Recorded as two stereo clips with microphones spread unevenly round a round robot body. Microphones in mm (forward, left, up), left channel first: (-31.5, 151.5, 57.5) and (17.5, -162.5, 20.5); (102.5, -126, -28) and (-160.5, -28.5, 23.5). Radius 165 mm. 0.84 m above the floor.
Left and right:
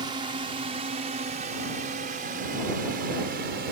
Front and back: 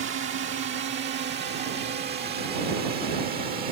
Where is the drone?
155° right; by 3.7 s 140° right.